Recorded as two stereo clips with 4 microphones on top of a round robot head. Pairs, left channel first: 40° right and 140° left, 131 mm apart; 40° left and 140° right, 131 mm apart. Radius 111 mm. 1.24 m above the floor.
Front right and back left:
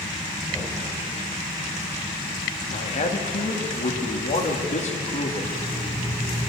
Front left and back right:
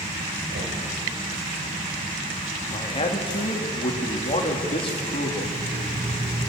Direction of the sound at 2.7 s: 5° right.